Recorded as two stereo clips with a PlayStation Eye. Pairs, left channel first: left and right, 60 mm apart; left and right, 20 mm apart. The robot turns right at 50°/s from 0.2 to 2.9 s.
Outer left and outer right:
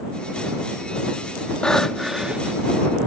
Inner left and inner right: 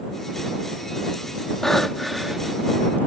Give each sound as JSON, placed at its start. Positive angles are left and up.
{"t": 1.6, "sound": "breathing", "azimuth_deg": 160}